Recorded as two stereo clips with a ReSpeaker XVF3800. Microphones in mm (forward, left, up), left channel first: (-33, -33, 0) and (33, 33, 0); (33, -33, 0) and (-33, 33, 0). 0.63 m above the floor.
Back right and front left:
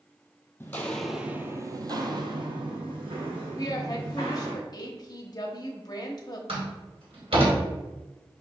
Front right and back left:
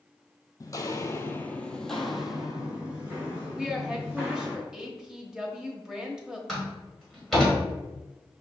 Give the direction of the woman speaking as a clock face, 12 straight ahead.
5 o'clock.